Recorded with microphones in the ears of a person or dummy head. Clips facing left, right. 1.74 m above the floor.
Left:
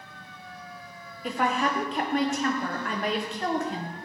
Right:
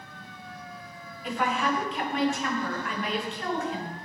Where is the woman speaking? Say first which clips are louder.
Left 1 dB; 40° left (ahead or behind), 0.8 m.